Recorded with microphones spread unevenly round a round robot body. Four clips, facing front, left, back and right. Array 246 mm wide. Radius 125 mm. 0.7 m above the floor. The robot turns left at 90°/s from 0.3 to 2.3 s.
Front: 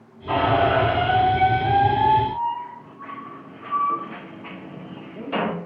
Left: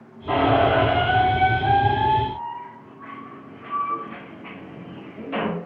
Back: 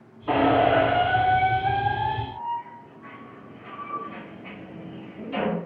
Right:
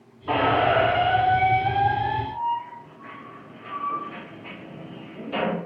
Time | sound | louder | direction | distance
0.3 | a squeak | left 2 dB, even | 175° right | 0.7 m